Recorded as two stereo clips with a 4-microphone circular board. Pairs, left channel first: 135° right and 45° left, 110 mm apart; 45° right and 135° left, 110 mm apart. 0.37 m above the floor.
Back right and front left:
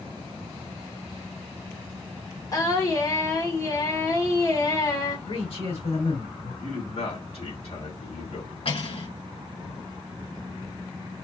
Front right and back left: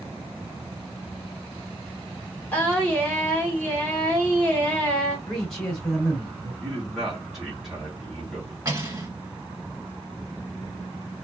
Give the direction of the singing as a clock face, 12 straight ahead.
4 o'clock.